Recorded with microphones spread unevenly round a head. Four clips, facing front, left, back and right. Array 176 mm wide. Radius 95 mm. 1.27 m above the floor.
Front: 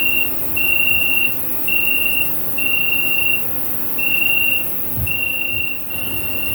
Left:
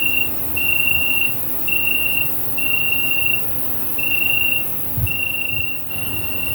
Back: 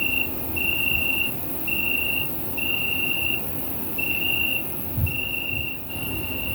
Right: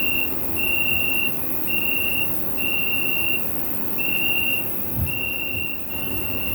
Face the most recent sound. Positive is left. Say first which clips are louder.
# left 1 dB, front 4 dB
turn(degrees=25)